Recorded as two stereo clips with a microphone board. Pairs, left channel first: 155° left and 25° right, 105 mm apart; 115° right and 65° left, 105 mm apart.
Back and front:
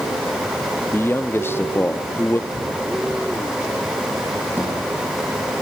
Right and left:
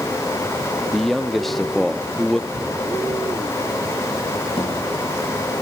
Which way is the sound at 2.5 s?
15° right.